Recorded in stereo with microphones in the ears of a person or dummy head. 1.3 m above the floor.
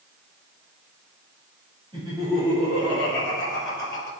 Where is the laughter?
25° right (ahead or behind), 2.5 m; by 4.1 s 15° left (ahead or behind), 4 m.